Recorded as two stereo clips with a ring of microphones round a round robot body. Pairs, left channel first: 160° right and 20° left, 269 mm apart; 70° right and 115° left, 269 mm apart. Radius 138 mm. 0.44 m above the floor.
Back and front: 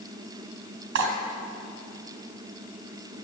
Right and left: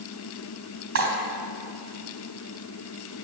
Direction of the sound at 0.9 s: 70° left.